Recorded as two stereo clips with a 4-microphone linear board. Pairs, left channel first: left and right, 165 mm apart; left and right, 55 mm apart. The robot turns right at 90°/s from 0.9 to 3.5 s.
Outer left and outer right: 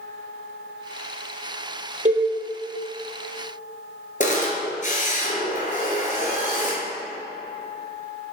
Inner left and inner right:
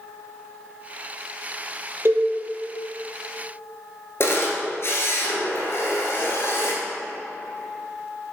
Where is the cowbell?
50° right (ahead or behind), 1.5 m; by 2.3 s 30° right (ahead or behind), 1.5 m.